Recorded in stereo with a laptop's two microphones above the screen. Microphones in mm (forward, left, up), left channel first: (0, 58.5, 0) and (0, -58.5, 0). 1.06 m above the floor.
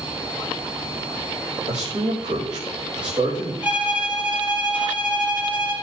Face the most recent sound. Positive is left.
turn(degrees=-15)  # may be behind; listen again after turning